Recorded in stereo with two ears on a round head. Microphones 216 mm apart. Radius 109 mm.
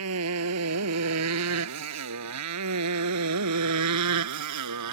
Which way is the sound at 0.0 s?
65° right (ahead or behind).